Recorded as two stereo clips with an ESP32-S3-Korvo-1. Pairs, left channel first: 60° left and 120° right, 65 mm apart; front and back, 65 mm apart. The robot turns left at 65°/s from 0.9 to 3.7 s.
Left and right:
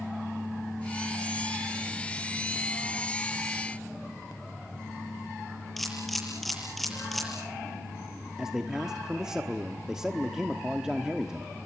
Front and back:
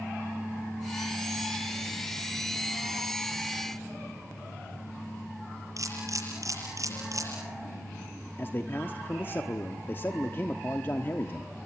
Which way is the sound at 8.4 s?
40° right.